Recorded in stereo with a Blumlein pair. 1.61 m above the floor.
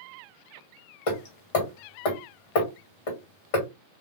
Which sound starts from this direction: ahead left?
Hammering, at 1.1 s.